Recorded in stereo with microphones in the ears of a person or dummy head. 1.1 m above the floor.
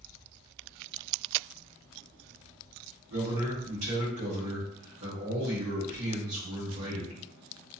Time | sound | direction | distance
3.1 | a man speaking | 85° right | 1.2 m